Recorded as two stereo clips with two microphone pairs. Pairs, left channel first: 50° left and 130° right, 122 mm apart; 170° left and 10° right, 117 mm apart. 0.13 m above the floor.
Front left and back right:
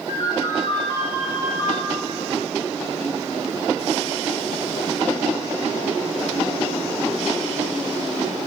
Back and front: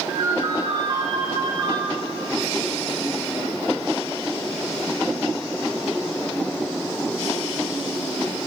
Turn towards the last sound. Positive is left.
turn(degrees=50)